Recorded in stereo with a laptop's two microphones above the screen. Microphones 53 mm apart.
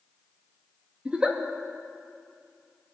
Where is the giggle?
20° right (ahead or behind), 1.6 m.